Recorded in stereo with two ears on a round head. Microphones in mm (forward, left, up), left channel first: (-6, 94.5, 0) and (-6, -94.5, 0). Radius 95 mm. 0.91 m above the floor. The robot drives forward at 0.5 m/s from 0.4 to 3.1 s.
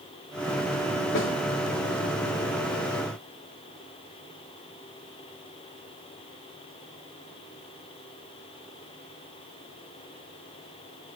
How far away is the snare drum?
About 3.5 m.